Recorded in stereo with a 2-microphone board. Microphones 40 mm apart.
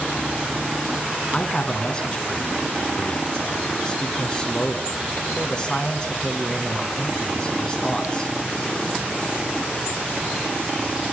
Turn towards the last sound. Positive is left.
turn(degrees=20)  # may be behind; listen again after turning